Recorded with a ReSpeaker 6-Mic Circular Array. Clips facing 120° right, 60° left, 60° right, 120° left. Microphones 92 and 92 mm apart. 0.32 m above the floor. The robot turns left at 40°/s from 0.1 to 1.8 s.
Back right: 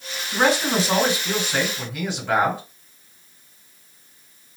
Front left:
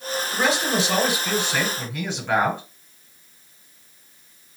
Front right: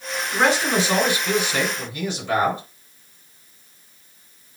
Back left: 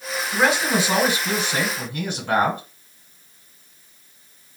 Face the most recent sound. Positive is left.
turn(degrees=155)